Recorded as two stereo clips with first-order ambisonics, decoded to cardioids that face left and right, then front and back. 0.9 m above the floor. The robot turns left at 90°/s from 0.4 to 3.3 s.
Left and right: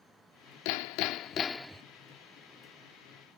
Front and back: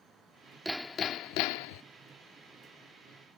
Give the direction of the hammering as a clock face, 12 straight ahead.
9 o'clock.